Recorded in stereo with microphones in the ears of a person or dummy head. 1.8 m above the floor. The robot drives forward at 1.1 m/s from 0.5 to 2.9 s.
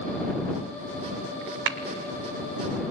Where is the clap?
65° right (ahead or behind), 1.5 m.